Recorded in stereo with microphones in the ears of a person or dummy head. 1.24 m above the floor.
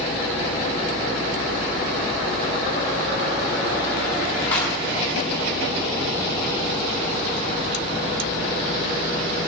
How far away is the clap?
About 7 m.